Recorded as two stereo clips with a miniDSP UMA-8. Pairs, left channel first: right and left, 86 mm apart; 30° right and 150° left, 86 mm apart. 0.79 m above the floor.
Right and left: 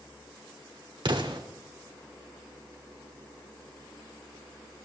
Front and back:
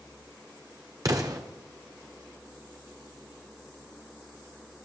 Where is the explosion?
105° left, 1.7 m.